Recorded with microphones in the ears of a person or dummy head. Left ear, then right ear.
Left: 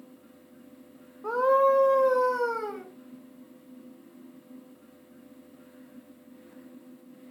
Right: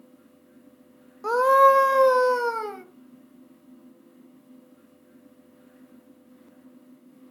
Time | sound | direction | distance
1.2 | a scream | 80° right | 1.1 m